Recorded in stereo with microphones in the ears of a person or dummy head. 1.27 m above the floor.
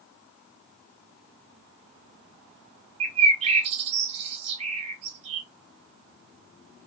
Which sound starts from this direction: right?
A bird, at 3.0 s.